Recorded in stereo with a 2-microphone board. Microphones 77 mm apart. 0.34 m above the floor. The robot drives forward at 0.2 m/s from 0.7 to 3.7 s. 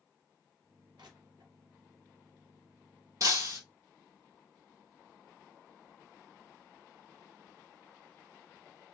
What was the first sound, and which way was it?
Crushing, 80° right.